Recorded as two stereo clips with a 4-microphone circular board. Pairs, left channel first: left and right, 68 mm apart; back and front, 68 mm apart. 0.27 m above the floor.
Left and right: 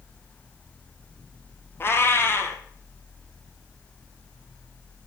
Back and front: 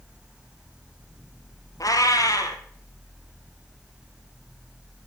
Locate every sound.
1.8 s a cat meowing: 145° left, 1.7 m